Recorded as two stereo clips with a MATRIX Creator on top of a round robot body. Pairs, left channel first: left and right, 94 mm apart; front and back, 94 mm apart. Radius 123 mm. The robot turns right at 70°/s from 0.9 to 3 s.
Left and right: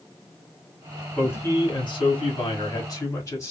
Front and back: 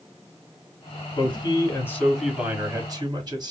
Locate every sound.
1.2 s a man speaking: 20° left, 1.6 m; by 3.5 s 145° left, 1.6 m